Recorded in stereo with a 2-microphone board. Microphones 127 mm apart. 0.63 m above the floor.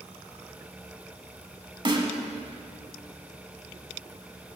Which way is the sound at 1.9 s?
40° right (ahead or behind).